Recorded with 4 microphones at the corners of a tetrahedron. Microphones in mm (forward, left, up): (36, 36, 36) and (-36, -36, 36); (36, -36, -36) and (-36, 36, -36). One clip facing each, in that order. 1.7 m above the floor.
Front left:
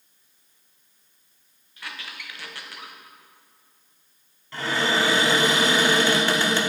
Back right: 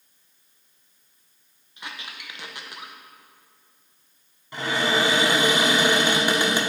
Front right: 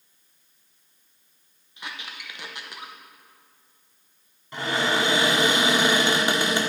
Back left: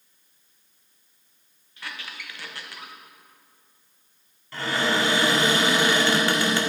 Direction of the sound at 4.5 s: 85° right.